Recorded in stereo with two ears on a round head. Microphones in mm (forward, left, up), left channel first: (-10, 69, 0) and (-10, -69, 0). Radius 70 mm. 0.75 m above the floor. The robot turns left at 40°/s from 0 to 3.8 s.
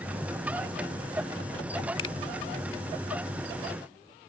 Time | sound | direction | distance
2.0 | a finger snap | 35° left (ahead or behind) | ?